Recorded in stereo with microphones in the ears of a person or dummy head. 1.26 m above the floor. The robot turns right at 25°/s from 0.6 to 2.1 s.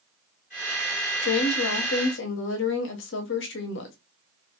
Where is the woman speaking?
70° left (ahead or behind), 0.8 m; by 4.0 s 55° left (ahead or behind), 0.8 m.